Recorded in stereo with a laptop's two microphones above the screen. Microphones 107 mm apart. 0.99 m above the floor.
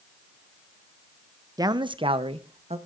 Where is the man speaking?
35° right (ahead or behind), 0.6 m; by 2.8 s 70° right (ahead or behind), 1.1 m.